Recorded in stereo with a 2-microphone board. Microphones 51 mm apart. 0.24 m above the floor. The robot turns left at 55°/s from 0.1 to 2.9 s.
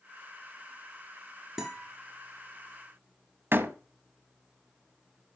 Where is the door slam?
45° right (ahead or behind), 1.1 m.